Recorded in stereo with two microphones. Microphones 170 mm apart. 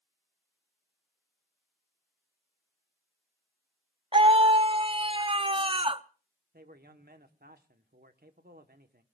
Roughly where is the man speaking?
Right.